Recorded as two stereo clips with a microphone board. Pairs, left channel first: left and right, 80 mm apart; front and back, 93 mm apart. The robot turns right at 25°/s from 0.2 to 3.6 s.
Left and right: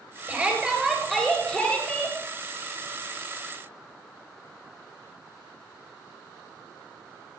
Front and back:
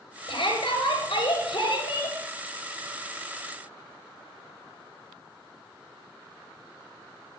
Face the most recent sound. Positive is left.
turn(degrees=65)